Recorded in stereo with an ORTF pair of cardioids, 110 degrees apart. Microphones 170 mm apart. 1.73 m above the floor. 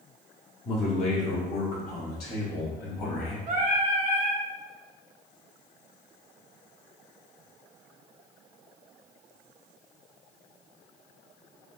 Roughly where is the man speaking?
Ahead left.